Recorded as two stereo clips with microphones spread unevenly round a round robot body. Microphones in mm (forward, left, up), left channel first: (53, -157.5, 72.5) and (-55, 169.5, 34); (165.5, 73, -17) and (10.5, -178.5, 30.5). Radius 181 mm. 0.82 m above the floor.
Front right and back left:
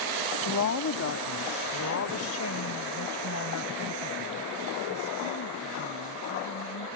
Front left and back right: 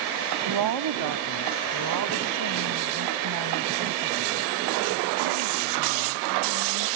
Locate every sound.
0.5 s a woman speaking: 120° right